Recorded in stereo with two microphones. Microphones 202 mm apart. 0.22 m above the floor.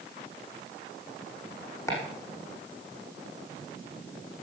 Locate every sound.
1.9 s chopping: 15° left (ahead or behind), 7.5 m